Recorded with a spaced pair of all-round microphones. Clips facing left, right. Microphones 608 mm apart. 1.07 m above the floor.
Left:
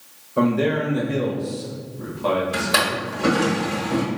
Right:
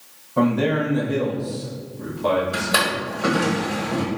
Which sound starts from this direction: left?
A drawer, at 2.5 s.